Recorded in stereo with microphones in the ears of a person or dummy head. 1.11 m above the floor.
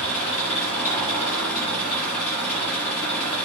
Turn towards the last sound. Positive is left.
turn(degrees=5)  # may be behind; listen again after turning